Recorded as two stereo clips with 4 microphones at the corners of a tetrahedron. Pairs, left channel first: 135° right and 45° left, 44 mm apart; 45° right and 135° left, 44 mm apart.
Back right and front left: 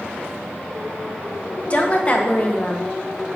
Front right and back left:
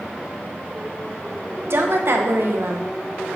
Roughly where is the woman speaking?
Behind.